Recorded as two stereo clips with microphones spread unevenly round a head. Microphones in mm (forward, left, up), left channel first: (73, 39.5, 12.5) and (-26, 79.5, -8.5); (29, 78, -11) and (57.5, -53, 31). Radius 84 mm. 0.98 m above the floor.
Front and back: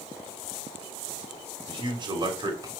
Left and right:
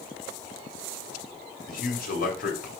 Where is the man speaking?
120° left, 3.5 m; by 2.7 s 110° left, 3 m.